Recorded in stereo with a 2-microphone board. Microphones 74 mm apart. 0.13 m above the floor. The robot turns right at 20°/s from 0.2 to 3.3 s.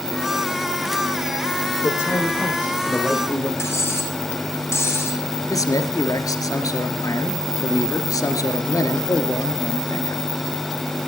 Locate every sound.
1.8 s a man speaking: 35° left (ahead or behind), 7 m; by 3.5 s 5° left (ahead or behind), 7 m
3.6 s cutlery clinking: 35° left (ahead or behind), 4.5 m
5.5 s a man speaking: 55° left (ahead or behind), 2.5 m